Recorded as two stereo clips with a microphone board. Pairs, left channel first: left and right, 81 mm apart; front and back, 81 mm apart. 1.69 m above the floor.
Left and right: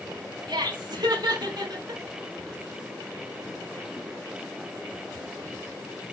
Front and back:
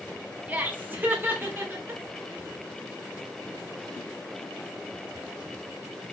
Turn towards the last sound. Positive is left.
turn(degrees=-120)